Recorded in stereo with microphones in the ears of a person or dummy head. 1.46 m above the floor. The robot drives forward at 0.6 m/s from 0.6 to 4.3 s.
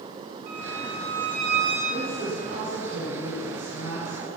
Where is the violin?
60° right (ahead or behind), 3 m; by 1.8 s 50° right (ahead or behind), 3.5 m.